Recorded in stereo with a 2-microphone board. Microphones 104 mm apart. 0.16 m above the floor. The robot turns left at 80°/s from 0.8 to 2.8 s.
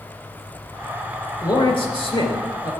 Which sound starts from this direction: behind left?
A man speaking, at 1.4 s.